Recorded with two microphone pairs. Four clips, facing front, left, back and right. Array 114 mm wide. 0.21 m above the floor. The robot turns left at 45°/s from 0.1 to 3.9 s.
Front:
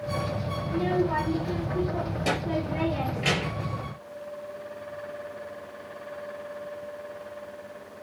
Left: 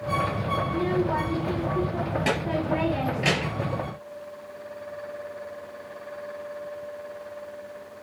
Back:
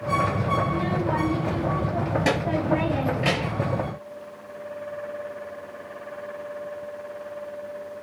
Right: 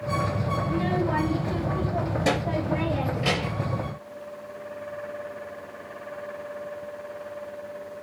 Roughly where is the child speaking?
Right.